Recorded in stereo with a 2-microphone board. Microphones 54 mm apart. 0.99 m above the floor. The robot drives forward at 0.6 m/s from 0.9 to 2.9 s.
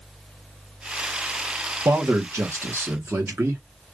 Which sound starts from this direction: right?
A man speaking, at 1.9 s.